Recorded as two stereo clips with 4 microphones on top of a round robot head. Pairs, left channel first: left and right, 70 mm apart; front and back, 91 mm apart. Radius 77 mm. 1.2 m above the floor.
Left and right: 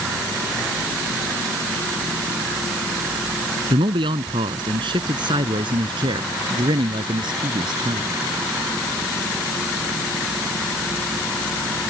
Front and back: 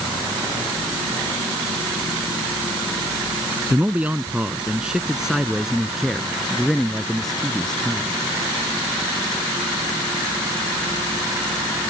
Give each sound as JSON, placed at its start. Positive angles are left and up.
{"t": 3.7, "sound": "a man speaking", "azimuth_deg": -100}